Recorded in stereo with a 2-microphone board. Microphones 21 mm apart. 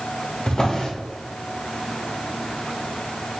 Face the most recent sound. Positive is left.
turn(degrees=40)  # may be behind; listen again after turning